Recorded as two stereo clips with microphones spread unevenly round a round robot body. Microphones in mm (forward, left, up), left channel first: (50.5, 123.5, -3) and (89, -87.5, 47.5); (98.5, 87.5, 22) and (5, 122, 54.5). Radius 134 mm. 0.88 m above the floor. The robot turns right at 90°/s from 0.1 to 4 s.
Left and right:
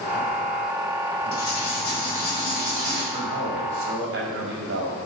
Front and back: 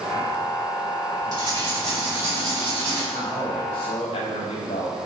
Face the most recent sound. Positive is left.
turn(degrees=-55)